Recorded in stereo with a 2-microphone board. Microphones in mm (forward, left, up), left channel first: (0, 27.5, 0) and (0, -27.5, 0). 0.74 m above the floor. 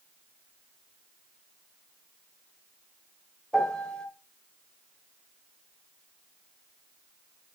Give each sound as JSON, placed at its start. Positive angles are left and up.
{"t": 3.5, "sound": "a piano", "side_deg": 15, "distance_m": 3.0}